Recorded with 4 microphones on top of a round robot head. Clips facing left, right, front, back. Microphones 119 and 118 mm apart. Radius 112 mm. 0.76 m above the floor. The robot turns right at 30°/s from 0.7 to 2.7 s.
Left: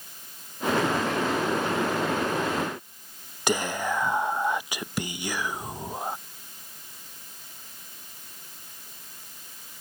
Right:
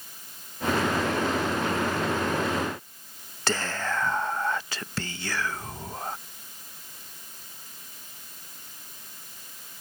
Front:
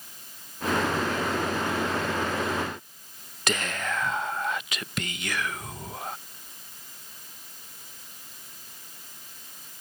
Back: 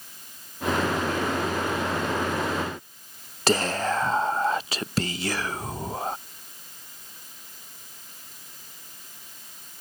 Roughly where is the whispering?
Behind left.